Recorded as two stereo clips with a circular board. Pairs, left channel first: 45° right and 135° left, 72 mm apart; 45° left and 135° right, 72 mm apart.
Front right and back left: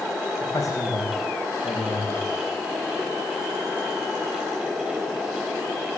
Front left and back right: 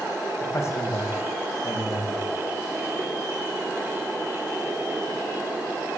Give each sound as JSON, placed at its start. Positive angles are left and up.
{"t": 0.4, "sound": "a man speaking", "azimuth_deg": -5, "distance_m": 8.0}